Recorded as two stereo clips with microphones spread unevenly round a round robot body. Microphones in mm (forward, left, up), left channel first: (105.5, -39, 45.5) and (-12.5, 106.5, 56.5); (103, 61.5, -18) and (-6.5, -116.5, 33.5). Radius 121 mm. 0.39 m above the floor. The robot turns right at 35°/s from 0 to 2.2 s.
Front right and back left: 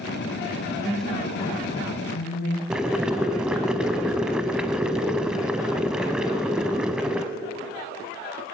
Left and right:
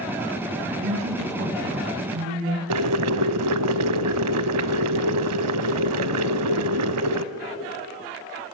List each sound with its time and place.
0.7 s a woman speaking: 150° right, 3 m; by 2.6 s 95° right, 3 m
2.7 s boiling: 145° right, 0.7 m